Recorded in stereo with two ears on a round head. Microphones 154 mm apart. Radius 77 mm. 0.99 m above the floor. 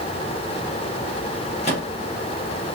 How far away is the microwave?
About 1.4 m.